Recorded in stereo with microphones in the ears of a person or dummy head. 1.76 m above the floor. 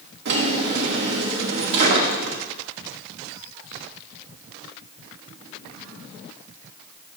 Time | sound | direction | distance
0.2 | a drawer | 55° right (ahead or behind) | 1.8 m